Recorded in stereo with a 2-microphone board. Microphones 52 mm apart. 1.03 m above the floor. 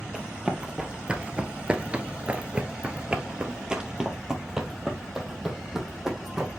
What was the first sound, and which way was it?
Running footsteps, 15° right (ahead or behind).